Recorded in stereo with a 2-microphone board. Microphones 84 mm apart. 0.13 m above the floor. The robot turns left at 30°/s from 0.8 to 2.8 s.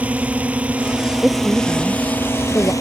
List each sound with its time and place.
0.0 s a drone: 15° right (ahead or behind); by 2.8 s 40° left (ahead or behind)
1.2 s a woman speaking: 170° right; by 2.7 s 145° left